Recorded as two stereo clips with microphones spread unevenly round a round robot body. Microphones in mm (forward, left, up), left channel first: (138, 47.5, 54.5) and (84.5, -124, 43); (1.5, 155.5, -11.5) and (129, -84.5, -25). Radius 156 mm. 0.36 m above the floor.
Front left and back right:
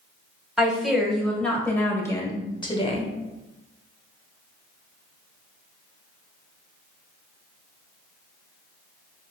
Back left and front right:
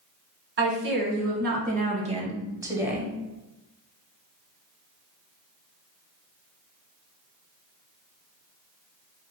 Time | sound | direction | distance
0.6 | a woman speaking | 20° right | 1.9 m